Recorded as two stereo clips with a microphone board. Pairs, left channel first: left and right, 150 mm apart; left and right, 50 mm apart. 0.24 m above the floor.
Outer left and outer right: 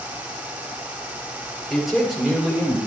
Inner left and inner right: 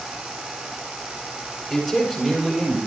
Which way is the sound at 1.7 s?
Centre (ahead or behind).